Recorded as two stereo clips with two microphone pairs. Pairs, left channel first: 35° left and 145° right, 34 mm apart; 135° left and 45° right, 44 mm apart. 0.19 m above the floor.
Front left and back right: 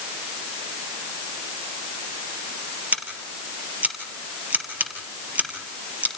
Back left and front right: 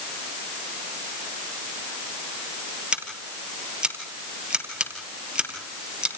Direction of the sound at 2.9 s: 110° right.